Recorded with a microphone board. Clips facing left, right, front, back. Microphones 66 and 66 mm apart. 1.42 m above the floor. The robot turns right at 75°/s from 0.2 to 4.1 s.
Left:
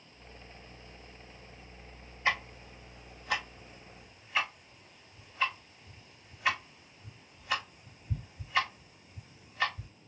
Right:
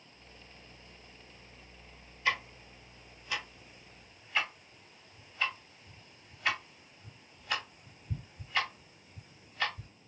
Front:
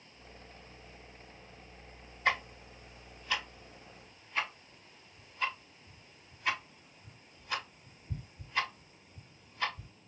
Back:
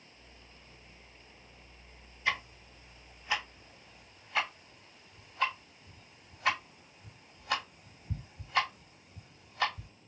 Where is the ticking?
30° left, 2.5 m; by 9.9 s 170° left, 2.5 m.